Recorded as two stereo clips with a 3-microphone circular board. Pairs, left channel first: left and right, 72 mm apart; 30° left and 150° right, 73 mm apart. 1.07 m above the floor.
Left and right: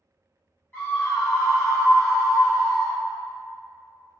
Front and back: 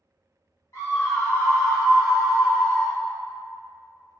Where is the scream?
35° left, 1.2 m; by 3.0 s 155° left, 1.6 m.